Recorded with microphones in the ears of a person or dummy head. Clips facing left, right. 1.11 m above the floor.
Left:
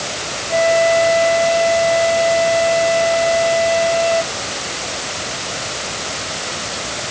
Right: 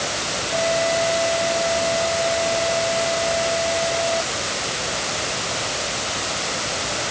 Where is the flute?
80° left.